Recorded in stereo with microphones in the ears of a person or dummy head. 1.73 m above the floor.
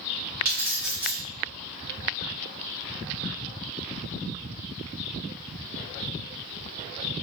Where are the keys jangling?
5° right (ahead or behind), 0.7 m.